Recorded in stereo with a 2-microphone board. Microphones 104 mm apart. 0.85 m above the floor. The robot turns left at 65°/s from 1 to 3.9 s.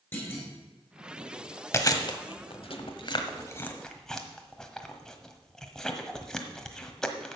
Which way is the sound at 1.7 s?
30° left (ahead or behind).